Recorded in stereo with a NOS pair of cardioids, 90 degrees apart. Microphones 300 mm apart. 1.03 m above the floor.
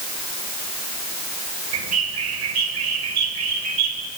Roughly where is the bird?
Ahead right.